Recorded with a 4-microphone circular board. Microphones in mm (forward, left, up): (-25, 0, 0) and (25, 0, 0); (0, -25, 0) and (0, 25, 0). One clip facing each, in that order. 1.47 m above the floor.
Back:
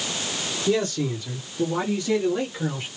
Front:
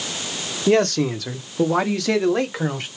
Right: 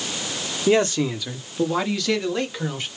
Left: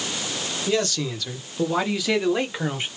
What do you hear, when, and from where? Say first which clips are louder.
0.7 s a man speaking: front 6 dB, right 6 dB; 30° right, 1.1 m; by 2.9 s 25° left, 1.6 m